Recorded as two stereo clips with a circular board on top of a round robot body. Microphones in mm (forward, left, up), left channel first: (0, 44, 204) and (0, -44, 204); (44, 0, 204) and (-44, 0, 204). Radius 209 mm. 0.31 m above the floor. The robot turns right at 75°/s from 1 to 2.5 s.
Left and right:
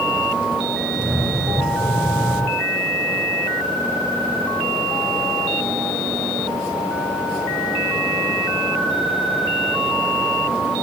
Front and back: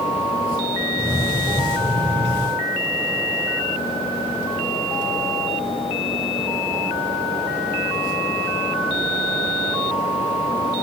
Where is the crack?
No crack in this recording.